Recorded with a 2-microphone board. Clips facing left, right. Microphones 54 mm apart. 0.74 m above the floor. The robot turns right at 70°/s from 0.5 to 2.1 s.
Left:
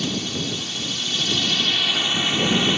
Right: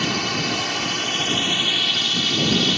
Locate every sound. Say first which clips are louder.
0.0 s a drone: right 3 dB; 95° right; by 2.8 s 20° left